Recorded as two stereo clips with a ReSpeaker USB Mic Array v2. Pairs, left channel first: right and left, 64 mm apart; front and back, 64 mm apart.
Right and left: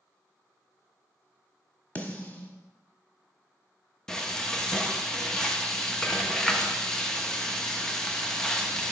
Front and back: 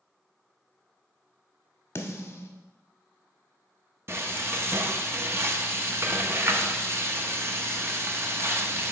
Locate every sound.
1.9 s a snare drum: 30° right, 1.0 m
4.1 s frying: 165° right, 0.7 m